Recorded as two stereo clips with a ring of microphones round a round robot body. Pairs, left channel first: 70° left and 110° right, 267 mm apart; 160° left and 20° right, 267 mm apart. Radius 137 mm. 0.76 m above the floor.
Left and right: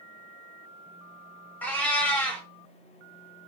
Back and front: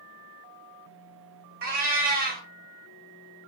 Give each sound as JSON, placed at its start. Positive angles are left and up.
{"t": 1.6, "sound": "a cat meowing", "azimuth_deg": -10, "distance_m": 0.6}